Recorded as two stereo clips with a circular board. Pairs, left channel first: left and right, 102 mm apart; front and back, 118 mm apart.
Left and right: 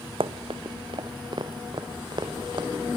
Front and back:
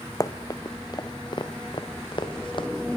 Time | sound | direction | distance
0.2 | running footsteps | 60° right | 1.4 m